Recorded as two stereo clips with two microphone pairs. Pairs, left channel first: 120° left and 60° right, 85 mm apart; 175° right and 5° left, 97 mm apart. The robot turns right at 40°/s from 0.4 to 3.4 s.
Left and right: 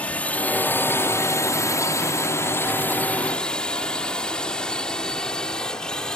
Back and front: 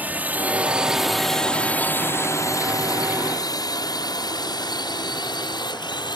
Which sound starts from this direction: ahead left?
A drone, at 0.0 s.